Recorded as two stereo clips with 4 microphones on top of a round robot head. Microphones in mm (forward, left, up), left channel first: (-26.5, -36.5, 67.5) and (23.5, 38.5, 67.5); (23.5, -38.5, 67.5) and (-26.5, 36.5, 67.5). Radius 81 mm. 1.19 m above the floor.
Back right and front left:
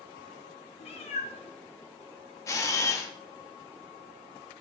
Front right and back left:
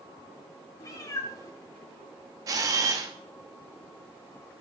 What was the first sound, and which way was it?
A cat meowing, 110° right.